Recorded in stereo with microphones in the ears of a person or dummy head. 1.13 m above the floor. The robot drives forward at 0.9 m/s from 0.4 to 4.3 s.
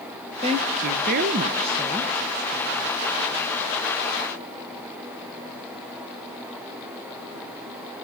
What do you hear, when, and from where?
0.4 s a woman speaking: 25° right (ahead or behind), 0.9 m; by 3.5 s 10° right (ahead or behind), 2 m